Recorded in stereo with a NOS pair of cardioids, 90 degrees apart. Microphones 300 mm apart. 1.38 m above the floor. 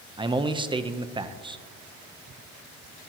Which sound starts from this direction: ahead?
A man speaking, at 0.2 s.